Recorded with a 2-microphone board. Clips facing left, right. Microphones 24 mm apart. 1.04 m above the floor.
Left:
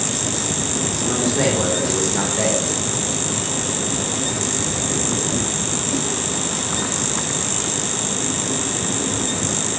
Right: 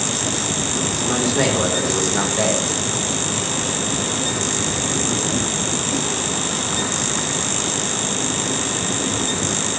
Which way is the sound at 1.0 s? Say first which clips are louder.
Even; 15° right (ahead or behind).